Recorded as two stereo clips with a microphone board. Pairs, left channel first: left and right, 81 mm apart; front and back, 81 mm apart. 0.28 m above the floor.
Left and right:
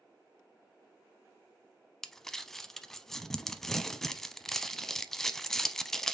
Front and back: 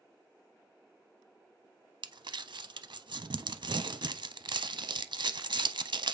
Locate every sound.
2.0 s crumpling: 175° left, 0.5 m